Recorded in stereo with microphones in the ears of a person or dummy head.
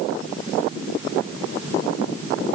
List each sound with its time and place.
Only background noise.